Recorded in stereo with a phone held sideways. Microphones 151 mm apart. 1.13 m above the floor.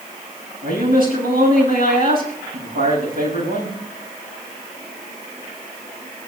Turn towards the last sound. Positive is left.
turn(degrees=-80)